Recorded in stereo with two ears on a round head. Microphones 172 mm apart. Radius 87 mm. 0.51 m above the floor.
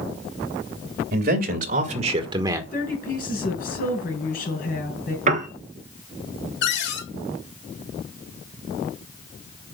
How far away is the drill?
No drill in this recording.